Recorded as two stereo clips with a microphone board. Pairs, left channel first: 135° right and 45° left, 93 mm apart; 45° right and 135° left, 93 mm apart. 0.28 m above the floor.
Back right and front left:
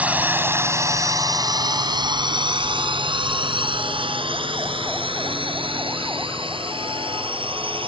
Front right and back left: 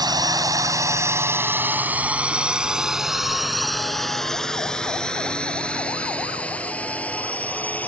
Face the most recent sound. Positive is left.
turn(degrees=25)